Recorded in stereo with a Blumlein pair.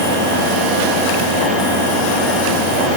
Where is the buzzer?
No buzzer in this recording.